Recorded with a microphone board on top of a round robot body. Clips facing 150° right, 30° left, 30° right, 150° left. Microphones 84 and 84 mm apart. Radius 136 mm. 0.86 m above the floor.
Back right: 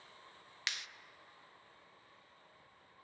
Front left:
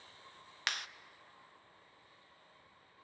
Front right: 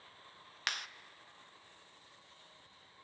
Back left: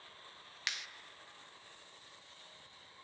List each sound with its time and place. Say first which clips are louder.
0.7 s a clap: front left 5 dB, front right 4 dB; 5° right, 0.8 m